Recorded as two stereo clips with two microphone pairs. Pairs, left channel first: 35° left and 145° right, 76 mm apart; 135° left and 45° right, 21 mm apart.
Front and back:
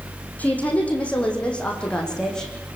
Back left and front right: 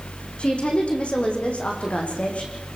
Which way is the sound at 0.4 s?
105° left.